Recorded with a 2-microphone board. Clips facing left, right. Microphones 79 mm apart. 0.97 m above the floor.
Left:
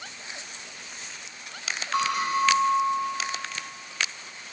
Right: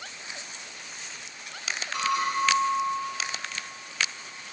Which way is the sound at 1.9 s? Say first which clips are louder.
Left 2 dB; 70° left (ahead or behind).